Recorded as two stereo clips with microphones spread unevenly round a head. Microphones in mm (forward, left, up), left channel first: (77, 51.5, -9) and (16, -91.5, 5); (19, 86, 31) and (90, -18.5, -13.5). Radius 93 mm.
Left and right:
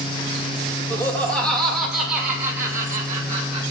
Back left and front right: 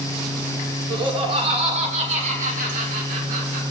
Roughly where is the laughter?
Ahead.